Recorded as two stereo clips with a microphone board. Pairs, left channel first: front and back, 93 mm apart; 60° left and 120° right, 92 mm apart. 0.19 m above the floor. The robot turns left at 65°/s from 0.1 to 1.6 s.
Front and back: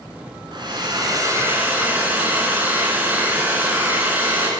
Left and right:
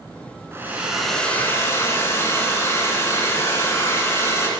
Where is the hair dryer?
175° right, 2 m; by 4.5 s 115° left, 2 m.